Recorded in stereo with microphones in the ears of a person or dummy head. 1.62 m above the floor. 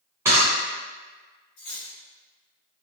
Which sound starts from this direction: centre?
A camera shutter, at 0.2 s.